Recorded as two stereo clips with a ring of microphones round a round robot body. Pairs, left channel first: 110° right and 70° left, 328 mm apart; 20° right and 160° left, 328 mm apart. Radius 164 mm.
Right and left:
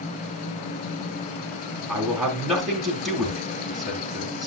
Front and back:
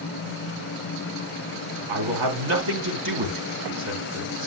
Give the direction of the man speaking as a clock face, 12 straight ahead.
7 o'clock.